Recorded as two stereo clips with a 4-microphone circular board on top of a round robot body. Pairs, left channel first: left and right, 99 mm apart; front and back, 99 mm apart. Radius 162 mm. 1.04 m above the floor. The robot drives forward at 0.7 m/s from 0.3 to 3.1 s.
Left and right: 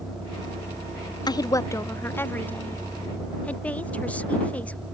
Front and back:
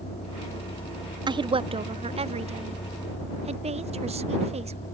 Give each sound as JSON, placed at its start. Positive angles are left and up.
{"t": 0.0, "sound": "a vehicle", "azimuth_deg": -5}
{"t": 1.3, "sound": "a woman speaking", "azimuth_deg": 135}